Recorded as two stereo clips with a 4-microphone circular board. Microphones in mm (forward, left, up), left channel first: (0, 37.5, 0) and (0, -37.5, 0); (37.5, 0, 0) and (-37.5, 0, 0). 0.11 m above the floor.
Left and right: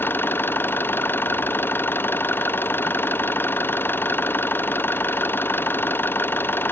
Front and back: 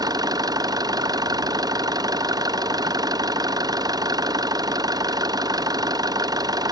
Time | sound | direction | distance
0.0 | an engine running | 155° left | ?